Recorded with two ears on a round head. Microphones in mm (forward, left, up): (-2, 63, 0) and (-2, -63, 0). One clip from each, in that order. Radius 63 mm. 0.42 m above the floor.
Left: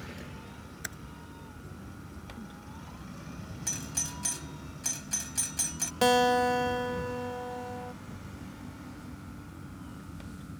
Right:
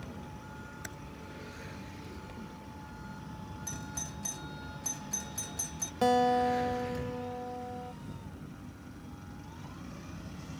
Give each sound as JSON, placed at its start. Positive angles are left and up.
{"t": 0.8, "sound": "typing on a keyboard", "side_deg": 30}
{"t": 3.7, "sound": "a doorbell", "side_deg": 55}
{"t": 6.0, "sound": "a guitar", "side_deg": 55}